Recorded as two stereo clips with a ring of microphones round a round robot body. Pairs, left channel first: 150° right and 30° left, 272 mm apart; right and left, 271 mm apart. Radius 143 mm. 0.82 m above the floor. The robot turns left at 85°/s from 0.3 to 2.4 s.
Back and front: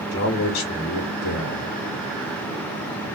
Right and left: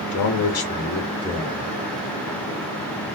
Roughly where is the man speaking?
Right.